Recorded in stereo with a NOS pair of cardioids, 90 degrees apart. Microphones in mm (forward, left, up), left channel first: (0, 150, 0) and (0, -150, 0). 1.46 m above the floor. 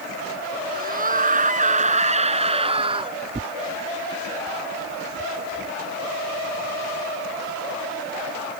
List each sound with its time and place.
0.7 s a scream: 30° right; by 3.2 s 15° right
3.3 s tearing paper: 15° right